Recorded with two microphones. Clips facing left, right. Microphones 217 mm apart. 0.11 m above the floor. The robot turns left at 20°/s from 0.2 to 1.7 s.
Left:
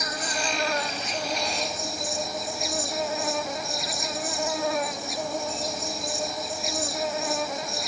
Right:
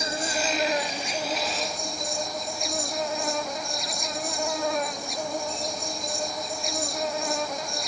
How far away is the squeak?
No squeak in this recording.